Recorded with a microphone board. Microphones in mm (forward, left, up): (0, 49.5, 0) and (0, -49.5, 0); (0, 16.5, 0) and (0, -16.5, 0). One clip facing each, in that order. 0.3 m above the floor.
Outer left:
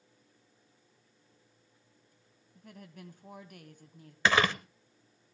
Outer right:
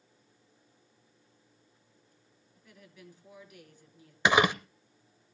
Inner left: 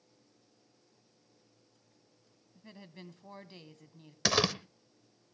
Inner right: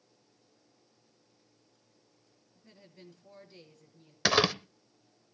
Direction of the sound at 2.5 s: 55° left (ahead or behind).